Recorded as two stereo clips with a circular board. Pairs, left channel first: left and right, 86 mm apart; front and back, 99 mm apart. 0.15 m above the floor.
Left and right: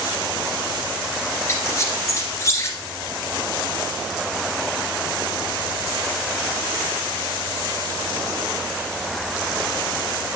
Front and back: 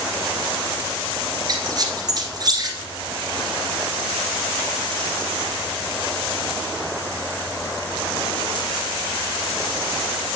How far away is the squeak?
About 1.8 m.